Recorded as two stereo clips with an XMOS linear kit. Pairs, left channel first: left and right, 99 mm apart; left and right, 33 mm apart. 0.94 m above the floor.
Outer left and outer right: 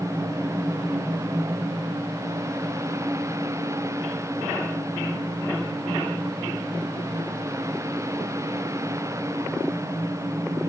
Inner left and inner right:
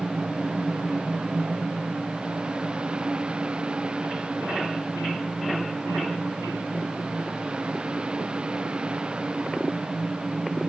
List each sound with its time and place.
Only background noise.